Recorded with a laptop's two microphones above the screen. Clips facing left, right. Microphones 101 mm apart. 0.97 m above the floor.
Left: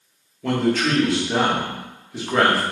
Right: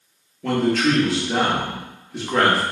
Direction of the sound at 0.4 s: Centre (ahead or behind).